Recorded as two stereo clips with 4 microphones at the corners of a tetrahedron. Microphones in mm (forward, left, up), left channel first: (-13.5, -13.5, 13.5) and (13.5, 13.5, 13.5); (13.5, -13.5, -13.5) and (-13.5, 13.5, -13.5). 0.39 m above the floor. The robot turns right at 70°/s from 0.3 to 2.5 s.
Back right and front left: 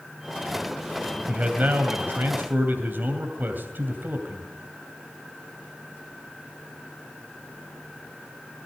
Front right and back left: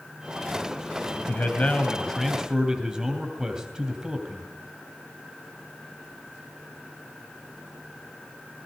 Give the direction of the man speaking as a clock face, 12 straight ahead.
1 o'clock.